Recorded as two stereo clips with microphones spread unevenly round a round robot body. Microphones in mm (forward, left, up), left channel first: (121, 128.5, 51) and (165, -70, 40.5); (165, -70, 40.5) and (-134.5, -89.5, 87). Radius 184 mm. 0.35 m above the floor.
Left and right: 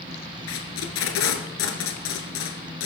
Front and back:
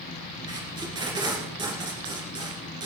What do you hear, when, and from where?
0.5 s tape being pulled: 105° left, 2 m